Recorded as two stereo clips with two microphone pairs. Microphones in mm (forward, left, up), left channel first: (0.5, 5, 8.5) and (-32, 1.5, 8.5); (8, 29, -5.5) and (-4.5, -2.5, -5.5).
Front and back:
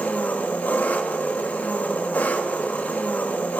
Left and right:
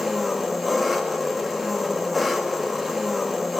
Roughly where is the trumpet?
No trumpet in this recording.